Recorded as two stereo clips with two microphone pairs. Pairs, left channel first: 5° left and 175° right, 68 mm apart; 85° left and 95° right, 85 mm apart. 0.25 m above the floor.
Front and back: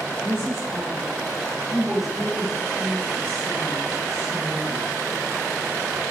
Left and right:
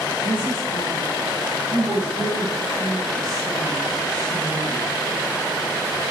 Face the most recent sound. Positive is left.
turn(degrees=5)